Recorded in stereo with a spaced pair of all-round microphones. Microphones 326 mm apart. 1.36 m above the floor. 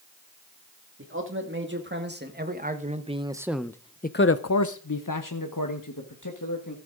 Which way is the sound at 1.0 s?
40° right (ahead or behind).